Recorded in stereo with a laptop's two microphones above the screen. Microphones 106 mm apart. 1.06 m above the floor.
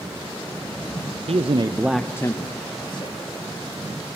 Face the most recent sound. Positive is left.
turn(degrees=50)  # may be behind; listen again after turning